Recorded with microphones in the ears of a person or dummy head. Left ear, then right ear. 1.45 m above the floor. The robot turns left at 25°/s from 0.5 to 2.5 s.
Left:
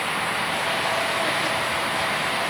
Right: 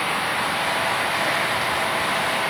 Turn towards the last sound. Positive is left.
No sound to turn to.